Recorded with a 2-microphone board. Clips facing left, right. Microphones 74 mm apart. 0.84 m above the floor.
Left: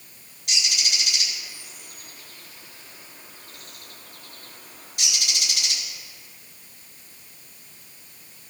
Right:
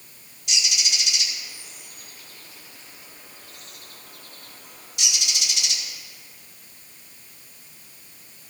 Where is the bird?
50° left (ahead or behind), 5.5 m.